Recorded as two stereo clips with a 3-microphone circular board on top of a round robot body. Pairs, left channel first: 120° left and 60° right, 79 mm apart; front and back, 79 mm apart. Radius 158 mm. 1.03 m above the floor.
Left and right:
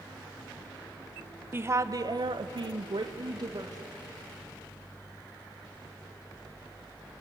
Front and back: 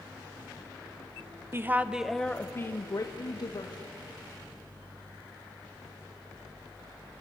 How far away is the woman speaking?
About 1.1 m.